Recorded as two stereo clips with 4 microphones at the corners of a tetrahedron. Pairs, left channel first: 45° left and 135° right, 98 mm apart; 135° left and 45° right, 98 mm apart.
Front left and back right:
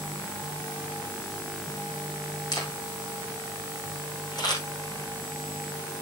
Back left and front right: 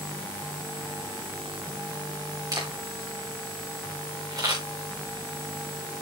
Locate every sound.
2.5 s a camera shutter: 5° left, 7.5 m